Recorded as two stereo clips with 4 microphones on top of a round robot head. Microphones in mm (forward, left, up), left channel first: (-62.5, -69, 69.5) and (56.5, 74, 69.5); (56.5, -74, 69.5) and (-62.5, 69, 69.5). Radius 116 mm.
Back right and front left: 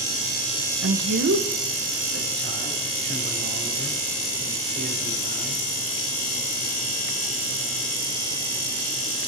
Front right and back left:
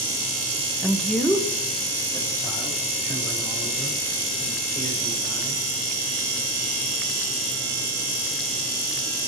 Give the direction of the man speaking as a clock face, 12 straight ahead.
11 o'clock.